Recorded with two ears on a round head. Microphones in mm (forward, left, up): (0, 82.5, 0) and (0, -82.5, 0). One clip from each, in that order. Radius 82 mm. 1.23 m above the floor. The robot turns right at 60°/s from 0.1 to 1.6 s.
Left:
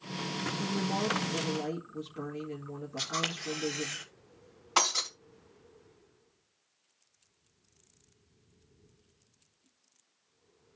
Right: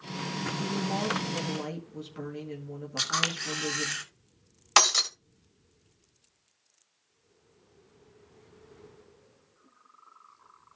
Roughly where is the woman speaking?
Behind left.